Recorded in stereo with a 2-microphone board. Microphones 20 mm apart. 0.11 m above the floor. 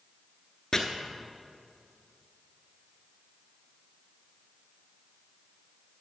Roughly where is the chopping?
Left.